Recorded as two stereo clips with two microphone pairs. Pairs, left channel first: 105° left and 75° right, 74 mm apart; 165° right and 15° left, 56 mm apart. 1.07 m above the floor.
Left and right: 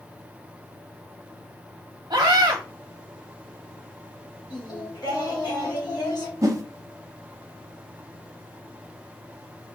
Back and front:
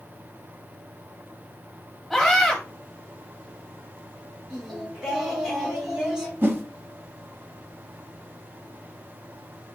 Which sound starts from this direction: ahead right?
A whoosh, at 6.4 s.